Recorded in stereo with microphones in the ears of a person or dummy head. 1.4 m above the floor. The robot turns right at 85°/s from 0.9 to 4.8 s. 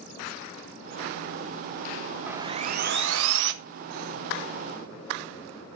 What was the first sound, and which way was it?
Sawing, 170° right.